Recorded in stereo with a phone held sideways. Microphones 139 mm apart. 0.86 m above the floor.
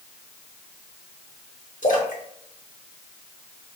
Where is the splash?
65° left (ahead or behind), 1.3 m.